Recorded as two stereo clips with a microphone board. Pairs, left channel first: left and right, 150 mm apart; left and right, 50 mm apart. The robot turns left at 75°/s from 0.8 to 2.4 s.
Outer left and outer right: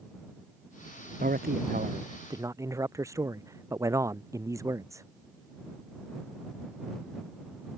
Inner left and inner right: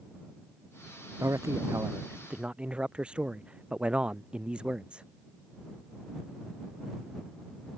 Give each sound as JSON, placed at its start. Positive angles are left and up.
{"t": 1.2, "sound": "a man speaking", "azimuth_deg": -70}